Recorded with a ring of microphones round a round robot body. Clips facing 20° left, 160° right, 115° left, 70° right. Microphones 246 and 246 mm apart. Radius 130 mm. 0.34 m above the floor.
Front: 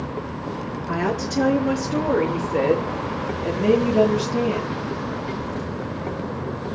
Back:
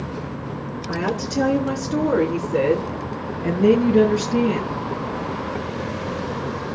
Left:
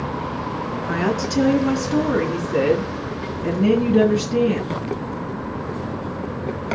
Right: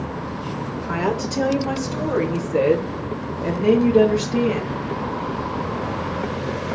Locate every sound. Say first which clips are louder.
0.9 s a woman speaking: even, left 2 dB; 115° left, 4.5 m; by 4.8 s 155° left, 4.5 m